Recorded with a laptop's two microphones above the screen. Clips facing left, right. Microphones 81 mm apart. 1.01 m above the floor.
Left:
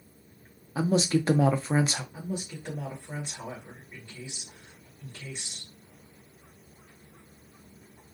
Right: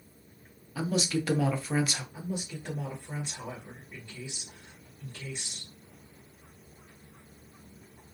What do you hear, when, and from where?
0.8 s a woman speaking: 30° left (ahead or behind), 0.5 m
2.1 s a woman speaking: 15° left (ahead or behind), 1.2 m